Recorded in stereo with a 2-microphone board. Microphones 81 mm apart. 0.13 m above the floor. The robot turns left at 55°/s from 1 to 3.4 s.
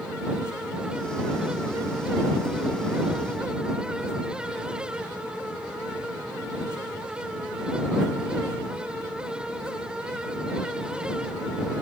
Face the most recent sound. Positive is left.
No sound to turn to.